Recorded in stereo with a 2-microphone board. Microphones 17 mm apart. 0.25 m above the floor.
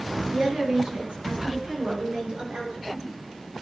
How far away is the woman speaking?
About 5 m.